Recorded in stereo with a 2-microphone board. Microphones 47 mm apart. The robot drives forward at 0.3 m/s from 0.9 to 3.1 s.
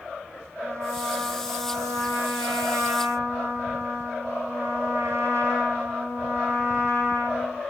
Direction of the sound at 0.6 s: 75° right (ahead or behind).